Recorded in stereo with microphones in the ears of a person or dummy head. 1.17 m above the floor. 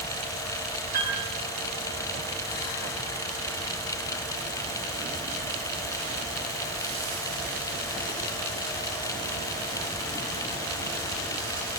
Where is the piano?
55° right (ahead or behind), 8.5 m.